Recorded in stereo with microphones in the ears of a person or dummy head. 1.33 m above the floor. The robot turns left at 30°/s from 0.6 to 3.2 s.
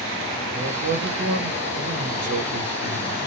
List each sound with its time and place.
0.5 s a man speaking: 55° right, 1.0 m; by 3.2 s 130° right, 1.0 m